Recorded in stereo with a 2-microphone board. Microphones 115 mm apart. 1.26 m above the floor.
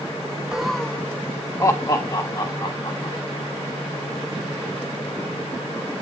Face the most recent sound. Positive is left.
turn(degrees=40)  # may be behind; listen again after turning